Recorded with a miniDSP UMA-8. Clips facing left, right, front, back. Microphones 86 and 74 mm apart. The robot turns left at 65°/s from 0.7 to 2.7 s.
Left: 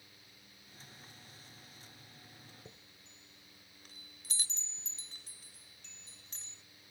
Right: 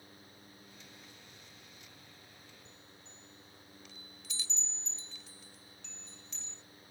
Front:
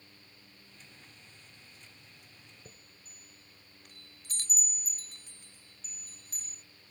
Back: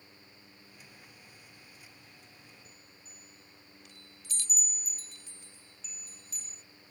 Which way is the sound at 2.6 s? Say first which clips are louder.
Right 1 dB, even; 45° left.